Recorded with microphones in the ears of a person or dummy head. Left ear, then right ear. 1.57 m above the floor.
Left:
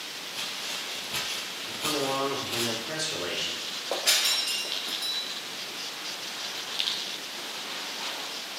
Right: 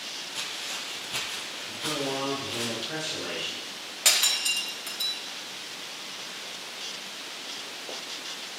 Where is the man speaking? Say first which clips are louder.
Left 2 dB; 80° left, 3 m.